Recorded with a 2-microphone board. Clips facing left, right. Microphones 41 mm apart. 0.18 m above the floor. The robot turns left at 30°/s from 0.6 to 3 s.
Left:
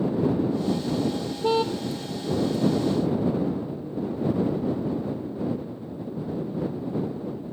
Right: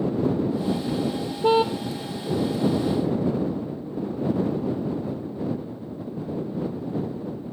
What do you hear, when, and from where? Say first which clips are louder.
1.4 s a car horn: right 4 dB; 25° right (ahead or behind); by 1.7 s 15° right (ahead or behind)